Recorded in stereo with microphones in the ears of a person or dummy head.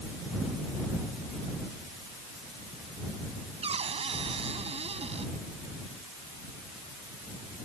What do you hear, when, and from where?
3.6 s a cupboard door: 30° right (ahead or behind)